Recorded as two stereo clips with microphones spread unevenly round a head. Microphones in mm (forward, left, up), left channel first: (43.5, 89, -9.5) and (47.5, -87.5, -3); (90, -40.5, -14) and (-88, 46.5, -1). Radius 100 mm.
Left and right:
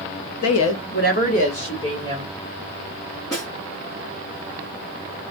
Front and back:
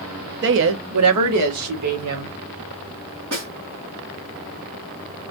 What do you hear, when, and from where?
0.4 s a woman speaking: 110° left, 0.7 m; by 2.4 s 165° left, 1.7 m
3.3 s a snare drum: 165° left, 2.5 m